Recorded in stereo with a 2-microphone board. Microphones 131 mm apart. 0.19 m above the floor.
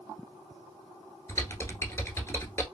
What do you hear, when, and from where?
1.3 s typing on a keyboard: 25° left (ahead or behind), 1.1 m